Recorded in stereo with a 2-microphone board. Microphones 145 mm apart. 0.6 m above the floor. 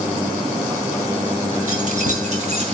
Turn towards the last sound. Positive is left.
turn(degrees=-50)  # may be behind; listen again after turning